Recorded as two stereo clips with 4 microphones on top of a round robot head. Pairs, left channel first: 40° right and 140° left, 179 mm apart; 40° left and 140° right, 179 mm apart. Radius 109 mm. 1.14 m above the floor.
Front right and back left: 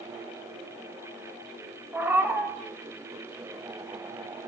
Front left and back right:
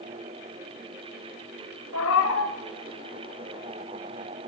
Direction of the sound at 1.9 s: 60° left.